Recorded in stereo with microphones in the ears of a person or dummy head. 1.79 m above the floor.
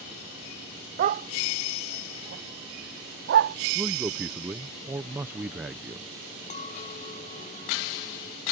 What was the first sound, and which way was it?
A dog barking, 40° right (ahead or behind).